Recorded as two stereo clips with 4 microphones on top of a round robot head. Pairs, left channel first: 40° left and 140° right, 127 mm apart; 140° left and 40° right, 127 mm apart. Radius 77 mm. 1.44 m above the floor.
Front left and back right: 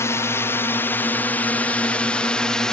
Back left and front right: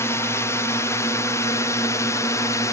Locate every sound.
0.0 s a drone: 90° left; by 2.7 s 120° left